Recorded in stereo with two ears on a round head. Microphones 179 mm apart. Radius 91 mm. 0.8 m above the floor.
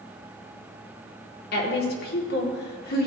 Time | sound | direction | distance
1.5 | a woman speaking | 55° left (ahead or behind) | 2 m